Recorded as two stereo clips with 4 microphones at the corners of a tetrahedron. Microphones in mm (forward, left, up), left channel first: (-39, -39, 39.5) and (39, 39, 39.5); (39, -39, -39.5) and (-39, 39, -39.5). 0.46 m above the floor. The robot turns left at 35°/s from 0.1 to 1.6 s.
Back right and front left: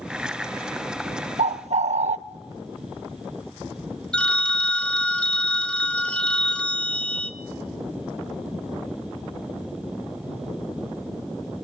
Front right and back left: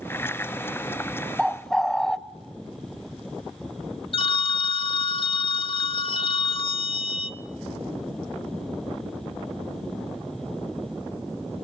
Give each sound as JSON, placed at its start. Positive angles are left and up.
{"t": 1.4, "sound": "a bird", "azimuth_deg": 45, "distance_m": 0.6}
{"t": 4.1, "sound": "a phone ringing", "azimuth_deg": -55, "distance_m": 0.8}